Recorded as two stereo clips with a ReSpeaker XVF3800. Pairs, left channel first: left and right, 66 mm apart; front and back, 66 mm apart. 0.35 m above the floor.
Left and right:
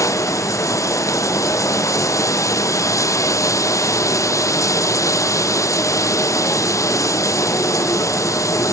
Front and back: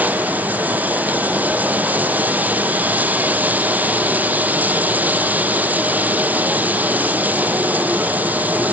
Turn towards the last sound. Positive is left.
turn(degrees=120)